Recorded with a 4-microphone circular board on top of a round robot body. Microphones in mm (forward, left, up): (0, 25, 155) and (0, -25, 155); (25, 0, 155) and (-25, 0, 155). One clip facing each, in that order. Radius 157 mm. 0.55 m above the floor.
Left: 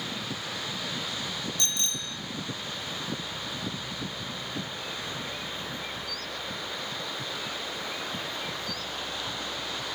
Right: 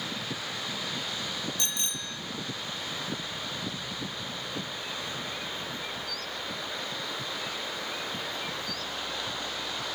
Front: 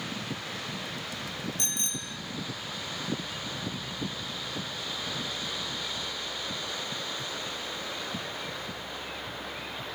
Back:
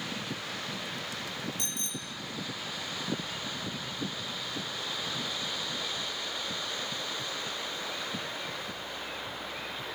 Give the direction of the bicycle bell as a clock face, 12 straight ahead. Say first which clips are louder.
Left 2 dB, front 2 dB; 1 o'clock.